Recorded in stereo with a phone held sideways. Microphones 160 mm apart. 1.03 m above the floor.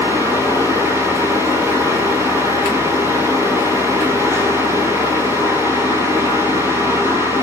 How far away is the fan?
About 5.5 m.